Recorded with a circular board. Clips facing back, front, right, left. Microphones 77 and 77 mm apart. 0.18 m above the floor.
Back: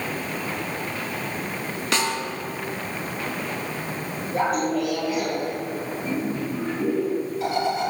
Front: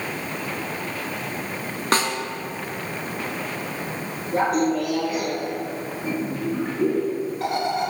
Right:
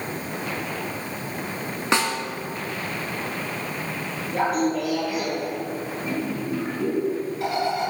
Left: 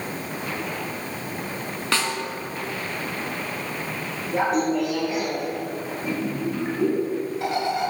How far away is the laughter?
About 2 m.